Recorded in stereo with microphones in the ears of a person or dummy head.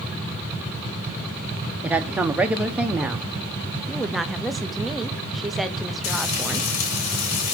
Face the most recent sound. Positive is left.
turn(degrees=60)  # may be behind; listen again after turning